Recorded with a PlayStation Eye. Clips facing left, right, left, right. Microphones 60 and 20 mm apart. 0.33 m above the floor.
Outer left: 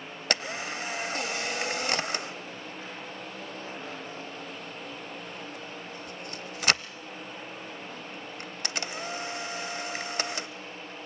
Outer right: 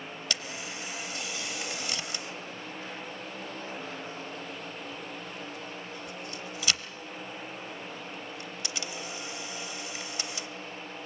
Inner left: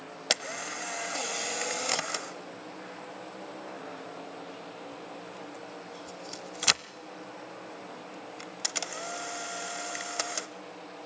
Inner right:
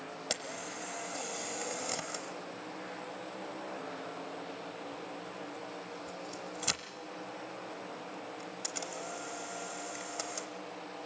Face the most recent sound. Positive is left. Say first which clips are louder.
# outer left 8 dB, inner left 9 dB
turn(degrees=50)  # may be behind; listen again after turning